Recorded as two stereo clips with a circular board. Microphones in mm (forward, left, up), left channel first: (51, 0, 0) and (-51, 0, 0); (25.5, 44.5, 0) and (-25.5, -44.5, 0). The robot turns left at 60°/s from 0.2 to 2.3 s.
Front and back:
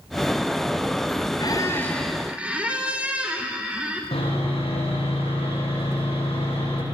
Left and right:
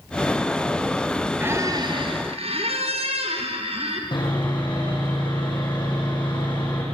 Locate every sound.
1.4 s a squeak: 45° right, 4 m; by 4.0 s 100° right, 4 m
4.1 s sawing: 20° left, 9.5 m